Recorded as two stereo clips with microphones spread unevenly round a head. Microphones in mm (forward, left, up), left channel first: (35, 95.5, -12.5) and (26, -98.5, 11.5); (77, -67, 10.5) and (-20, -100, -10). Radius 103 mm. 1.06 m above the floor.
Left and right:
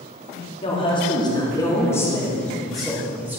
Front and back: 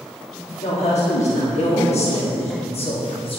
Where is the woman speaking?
30° left, 2.5 m; by 3.4 s 10° right, 1.9 m.